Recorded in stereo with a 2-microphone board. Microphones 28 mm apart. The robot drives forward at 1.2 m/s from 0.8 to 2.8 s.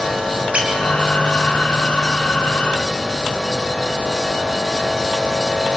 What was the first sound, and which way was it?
A squeak, 50° right (ahead or behind).